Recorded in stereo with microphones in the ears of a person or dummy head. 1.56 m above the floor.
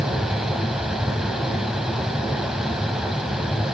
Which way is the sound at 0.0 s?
5° right (ahead or behind).